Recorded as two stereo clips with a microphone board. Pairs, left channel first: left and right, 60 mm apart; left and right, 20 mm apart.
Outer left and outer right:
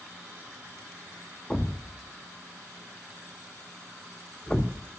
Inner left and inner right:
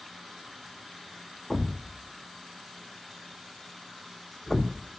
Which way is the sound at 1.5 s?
15° left (ahead or behind).